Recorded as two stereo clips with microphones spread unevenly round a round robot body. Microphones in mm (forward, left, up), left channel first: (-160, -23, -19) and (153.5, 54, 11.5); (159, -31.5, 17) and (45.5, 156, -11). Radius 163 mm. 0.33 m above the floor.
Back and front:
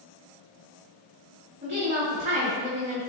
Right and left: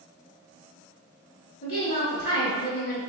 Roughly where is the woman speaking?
Ahead right.